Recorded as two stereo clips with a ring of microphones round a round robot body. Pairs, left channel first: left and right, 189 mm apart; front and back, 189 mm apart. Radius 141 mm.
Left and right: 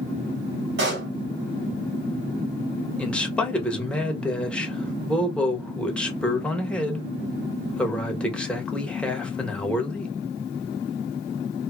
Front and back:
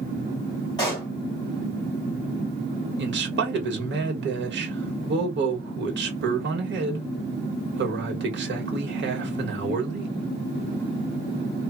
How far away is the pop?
About 1.7 m.